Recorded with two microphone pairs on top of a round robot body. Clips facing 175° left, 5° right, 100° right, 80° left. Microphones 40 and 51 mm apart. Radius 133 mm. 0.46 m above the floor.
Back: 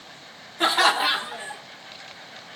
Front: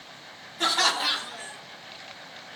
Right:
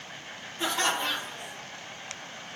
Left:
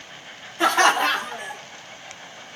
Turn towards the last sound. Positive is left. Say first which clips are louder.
# back 5 dB, left 11 dB
turn(degrees=110)